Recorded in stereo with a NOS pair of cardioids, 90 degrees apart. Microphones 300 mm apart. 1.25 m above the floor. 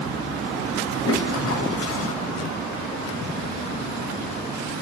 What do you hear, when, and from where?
1.0 s a toilet flushing: 50° left, 7 m